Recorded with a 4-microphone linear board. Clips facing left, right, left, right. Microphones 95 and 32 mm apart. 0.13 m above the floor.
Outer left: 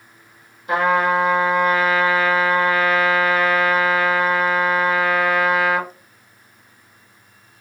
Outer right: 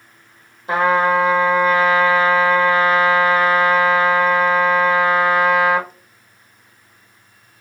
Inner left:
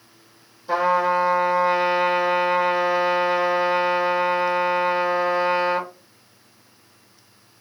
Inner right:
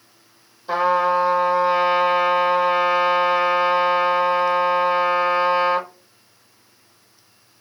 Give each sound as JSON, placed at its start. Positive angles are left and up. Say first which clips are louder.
{"t": 0.7, "sound": "a trumpet", "louder": "outer right 2 dB, inner right 1 dB", "side_deg": -25, "distance_m": 1.0}